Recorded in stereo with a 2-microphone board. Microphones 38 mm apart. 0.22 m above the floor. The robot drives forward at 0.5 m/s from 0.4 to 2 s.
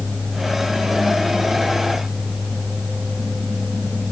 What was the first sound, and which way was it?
Only background noise.